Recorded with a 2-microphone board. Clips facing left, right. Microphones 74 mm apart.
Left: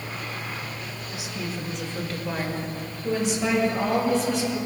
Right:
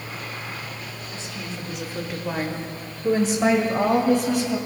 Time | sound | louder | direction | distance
1.1 | a woman speaking | left 3 dB | 15° left (ahead or behind) | 1.4 m